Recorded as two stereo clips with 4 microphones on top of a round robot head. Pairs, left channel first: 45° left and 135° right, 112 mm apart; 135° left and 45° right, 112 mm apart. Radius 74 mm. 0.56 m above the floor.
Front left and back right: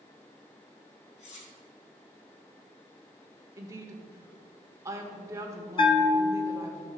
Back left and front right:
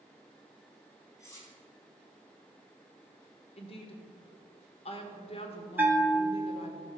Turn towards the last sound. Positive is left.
turn(degrees=25)